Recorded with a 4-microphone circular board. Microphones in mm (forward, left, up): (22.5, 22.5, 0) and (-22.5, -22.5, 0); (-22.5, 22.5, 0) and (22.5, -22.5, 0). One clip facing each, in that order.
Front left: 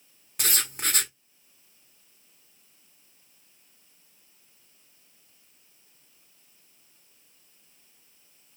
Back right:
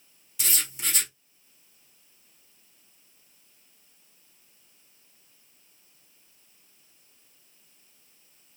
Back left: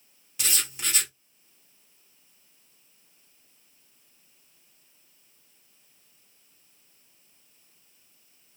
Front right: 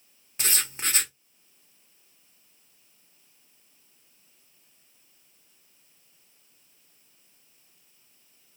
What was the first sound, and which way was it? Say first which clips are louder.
Writing: front left 3 dB, front right 2 dB; 10° left.